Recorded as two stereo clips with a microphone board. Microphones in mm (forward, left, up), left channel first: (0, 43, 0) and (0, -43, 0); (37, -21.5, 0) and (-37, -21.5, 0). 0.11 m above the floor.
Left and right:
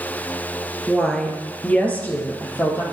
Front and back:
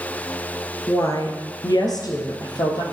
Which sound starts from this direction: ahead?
A woman speaking, at 0.9 s.